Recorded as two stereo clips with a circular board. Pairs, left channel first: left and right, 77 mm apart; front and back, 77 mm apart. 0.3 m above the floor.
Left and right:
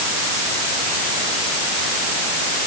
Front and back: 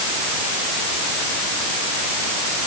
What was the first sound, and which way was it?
Only background noise.